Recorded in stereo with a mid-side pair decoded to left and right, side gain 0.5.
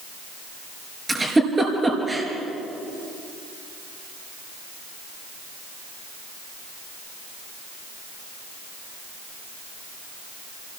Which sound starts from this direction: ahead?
A giggle, at 1.1 s.